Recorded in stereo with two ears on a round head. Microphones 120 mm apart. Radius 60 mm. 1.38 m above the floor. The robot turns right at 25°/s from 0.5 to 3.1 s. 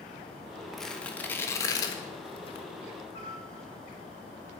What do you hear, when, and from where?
0.7 s tearing paper: centre (ahead or behind), 1.2 m; by 2.7 s 45° left (ahead or behind), 1.2 m
3.1 s a piano: 60° left (ahead or behind), 6 m